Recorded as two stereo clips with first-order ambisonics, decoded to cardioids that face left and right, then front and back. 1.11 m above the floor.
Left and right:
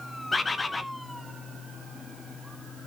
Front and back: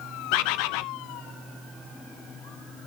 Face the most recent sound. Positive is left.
turn(degrees=10)